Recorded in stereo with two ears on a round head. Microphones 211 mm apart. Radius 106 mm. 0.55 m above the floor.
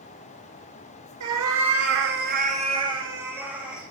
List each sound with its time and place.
1.2 s a cat meowing: 80° right, 1.7 m; by 3.8 s 5° right (ahead or behind), 3 m